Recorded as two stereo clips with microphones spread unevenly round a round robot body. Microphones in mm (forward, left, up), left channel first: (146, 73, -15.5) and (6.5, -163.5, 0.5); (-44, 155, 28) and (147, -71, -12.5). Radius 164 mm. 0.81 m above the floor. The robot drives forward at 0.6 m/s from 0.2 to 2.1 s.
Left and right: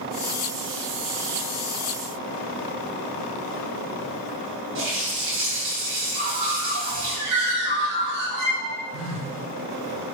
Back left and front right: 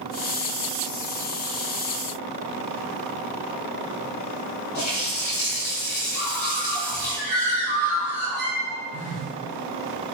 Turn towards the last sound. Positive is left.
turn(degrees=-160)